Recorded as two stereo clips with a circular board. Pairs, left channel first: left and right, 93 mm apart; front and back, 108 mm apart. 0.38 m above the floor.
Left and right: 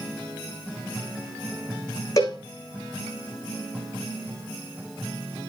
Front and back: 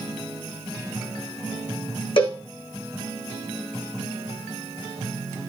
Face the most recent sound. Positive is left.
turn(degrees=35)